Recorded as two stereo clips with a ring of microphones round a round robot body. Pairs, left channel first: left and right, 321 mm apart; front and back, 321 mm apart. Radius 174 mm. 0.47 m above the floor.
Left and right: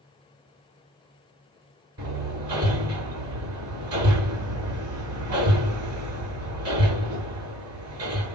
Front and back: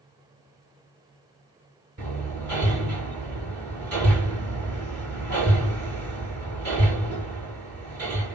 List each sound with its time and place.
2.0 s hammering: 135° right, 6.5 m